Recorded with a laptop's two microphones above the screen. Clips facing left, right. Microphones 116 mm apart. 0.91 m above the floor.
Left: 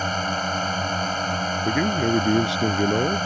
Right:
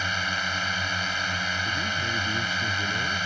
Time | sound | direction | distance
0.0 | a drone | 40° left (ahead or behind) | ?
1.6 | a man speaking | 80° left | ?